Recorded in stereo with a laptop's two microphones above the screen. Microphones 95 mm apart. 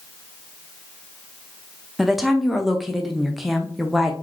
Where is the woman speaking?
Centre (ahead or behind), 0.6 m.